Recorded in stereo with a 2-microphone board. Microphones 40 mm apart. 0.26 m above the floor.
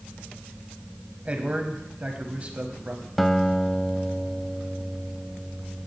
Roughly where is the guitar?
Centre.